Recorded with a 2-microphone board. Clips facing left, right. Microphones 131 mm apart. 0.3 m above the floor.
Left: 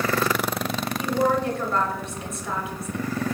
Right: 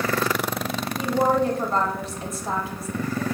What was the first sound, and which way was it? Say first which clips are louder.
A woman speaking: right 2 dB; 35° right (ahead or behind).